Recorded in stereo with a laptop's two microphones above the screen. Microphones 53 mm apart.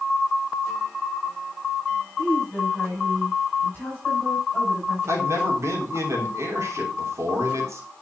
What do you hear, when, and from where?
2.2 s a woman speaking: 25° left (ahead or behind), 5 m
5.1 s a man speaking: 60° right (ahead or behind), 3 m